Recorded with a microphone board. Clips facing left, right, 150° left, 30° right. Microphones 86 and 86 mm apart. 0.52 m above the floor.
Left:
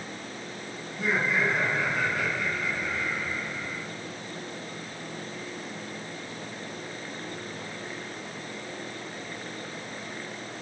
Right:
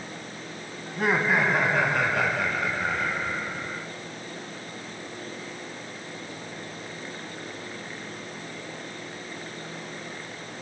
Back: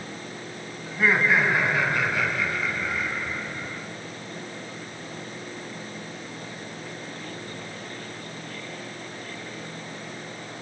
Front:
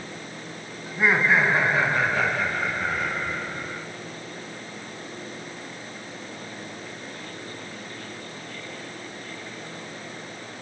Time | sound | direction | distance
0.9 | laughter | 100° right | 4.5 m